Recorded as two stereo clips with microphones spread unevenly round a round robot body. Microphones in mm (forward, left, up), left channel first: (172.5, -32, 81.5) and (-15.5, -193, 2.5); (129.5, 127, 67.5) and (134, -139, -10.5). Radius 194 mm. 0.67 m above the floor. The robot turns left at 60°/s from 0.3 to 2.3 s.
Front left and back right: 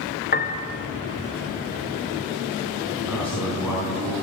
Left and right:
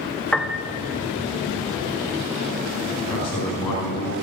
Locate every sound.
0.3 s a piano: 15° right, 1.3 m; by 0.7 s 35° right, 1.3 m
3.0 s a man speaking: 130° left, 5.5 m